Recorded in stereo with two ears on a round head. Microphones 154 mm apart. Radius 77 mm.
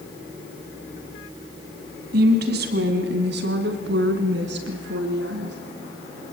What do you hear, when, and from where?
2.1 s a woman speaking: 65° right (ahead or behind), 3 m; by 5.6 s 75° right (ahead or behind), 5 m